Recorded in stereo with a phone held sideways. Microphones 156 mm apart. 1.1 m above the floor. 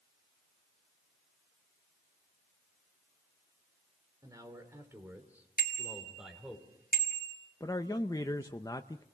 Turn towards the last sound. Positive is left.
turn(degrees=25)  # may be behind; listen again after turning